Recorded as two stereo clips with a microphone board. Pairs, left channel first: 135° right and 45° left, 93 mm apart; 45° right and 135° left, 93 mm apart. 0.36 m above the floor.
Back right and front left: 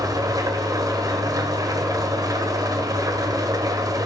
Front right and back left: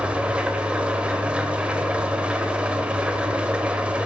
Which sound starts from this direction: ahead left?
An engine running, at 0.0 s.